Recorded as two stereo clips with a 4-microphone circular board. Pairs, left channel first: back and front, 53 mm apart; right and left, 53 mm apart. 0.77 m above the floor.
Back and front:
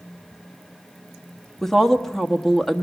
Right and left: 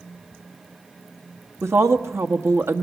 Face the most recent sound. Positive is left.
turn(degrees=95)